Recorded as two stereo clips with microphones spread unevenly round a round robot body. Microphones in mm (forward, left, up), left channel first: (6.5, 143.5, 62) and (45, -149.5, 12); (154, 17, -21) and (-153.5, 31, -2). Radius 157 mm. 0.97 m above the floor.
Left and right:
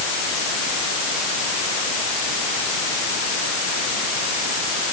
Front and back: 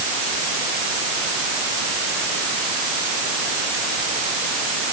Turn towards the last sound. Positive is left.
No sound to turn to.